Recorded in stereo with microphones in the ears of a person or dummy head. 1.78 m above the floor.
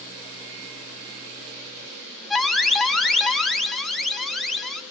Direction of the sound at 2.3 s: Centre (ahead or behind).